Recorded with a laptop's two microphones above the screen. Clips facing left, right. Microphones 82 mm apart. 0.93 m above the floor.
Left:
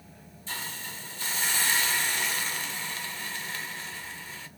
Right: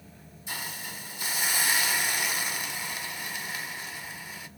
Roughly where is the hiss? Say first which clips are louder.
Even; centre.